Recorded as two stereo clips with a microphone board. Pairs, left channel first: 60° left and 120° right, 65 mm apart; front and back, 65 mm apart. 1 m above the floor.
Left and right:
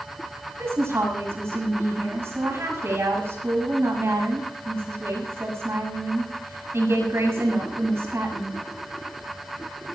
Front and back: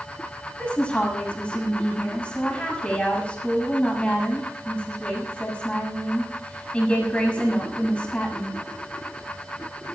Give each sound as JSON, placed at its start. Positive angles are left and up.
{"t": 0.6, "sound": "a woman speaking", "azimuth_deg": -75, "distance_m": 6.5}